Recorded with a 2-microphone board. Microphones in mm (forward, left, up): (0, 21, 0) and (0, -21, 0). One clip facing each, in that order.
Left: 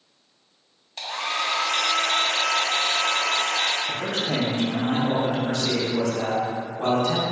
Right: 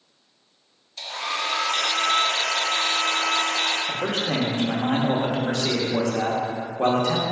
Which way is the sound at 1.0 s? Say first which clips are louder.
Left 1 dB; 55° left (ahead or behind).